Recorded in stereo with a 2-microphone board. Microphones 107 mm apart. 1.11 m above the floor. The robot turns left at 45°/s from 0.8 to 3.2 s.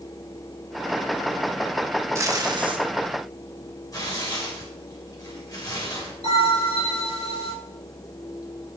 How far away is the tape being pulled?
About 1.3 m.